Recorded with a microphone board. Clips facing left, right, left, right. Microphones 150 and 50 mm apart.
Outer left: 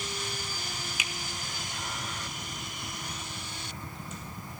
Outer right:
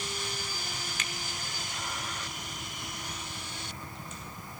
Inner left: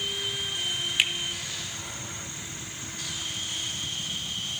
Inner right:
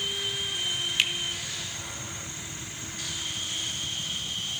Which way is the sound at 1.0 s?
10° left (ahead or behind).